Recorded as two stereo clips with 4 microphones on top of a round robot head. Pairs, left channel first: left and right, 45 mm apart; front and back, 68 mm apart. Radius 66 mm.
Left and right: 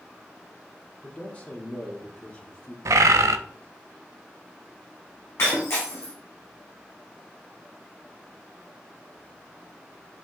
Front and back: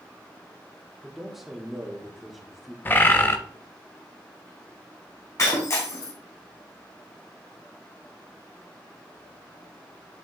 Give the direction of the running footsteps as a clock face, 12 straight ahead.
I don't hear running footsteps.